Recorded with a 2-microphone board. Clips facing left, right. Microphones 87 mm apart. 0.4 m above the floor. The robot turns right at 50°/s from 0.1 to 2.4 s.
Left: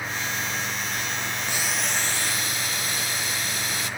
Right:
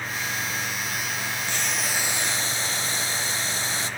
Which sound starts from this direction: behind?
Boiling, at 1.5 s.